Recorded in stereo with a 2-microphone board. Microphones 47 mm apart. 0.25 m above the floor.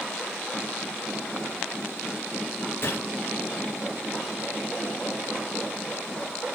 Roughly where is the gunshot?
Left.